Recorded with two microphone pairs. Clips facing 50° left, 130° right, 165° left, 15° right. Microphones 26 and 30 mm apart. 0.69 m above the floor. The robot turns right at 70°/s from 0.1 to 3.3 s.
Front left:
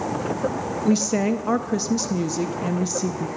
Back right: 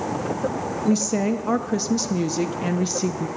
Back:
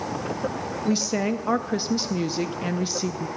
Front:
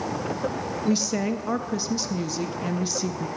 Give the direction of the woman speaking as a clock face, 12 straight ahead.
9 o'clock.